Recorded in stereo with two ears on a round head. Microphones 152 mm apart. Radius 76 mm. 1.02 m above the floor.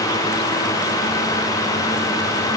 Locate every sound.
Only background noise.